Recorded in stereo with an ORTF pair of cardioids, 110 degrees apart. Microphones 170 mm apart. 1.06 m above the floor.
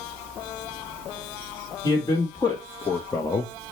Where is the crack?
No crack in this recording.